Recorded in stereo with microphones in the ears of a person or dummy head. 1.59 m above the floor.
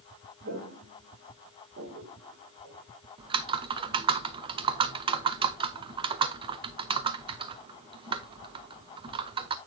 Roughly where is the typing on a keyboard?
Right.